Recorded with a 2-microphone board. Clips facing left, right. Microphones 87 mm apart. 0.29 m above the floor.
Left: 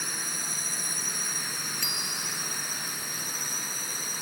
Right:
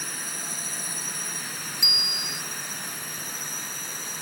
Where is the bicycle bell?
15° right (ahead or behind).